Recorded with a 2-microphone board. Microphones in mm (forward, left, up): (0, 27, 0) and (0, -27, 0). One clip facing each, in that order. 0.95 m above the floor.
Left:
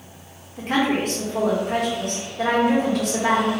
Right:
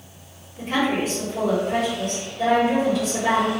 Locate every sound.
0.6 s a woman speaking: 60° left (ahead or behind), 1.3 m